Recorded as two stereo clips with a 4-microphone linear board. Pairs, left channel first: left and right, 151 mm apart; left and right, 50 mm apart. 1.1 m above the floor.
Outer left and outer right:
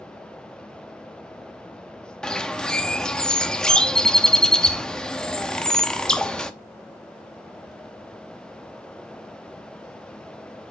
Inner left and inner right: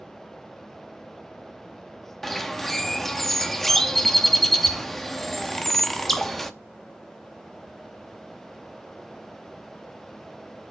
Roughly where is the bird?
Centre.